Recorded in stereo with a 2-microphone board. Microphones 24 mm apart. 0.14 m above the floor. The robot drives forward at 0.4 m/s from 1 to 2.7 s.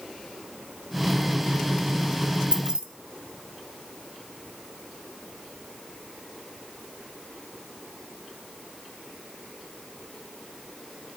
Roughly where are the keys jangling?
Right.